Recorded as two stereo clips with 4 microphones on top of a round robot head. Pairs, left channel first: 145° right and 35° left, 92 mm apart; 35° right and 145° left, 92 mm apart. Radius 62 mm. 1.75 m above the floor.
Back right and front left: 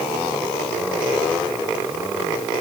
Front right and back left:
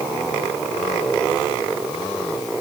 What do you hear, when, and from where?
Only background noise.